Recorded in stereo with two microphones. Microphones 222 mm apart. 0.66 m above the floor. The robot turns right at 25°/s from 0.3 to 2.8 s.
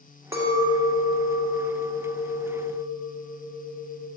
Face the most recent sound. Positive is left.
turn(degrees=-105)